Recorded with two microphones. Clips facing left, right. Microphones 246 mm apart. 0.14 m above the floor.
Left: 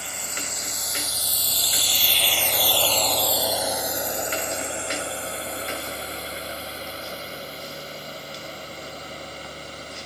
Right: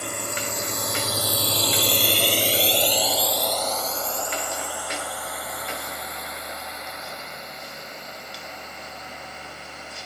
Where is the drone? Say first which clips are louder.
Right 7 dB; 60° right (ahead or behind); by 10.1 s 35° left (ahead or behind).